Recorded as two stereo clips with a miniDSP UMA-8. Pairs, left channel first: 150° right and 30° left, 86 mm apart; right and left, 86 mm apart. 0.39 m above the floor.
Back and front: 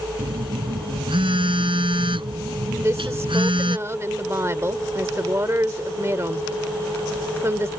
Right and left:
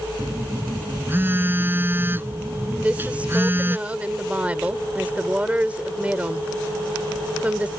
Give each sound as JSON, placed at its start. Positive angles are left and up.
{"t": 0.2, "sound": "a phone buzzing", "azimuth_deg": 25}
{"t": 2.8, "sound": "a woman speaking", "azimuth_deg": 35}